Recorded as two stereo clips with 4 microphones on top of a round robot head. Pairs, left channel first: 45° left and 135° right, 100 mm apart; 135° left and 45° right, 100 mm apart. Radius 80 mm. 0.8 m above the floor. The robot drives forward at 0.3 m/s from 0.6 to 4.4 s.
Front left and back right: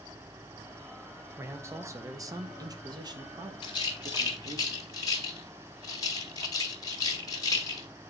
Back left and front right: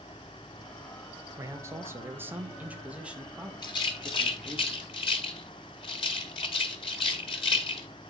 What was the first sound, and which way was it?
A man speaking, 85° right.